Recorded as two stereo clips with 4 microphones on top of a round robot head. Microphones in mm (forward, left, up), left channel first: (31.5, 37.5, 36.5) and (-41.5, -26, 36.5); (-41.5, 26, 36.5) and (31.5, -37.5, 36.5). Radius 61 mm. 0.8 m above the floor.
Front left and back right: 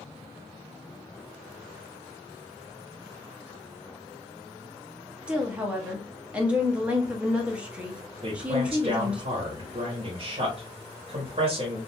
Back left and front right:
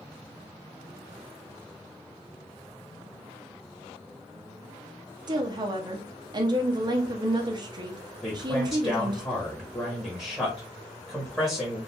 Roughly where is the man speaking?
Behind right.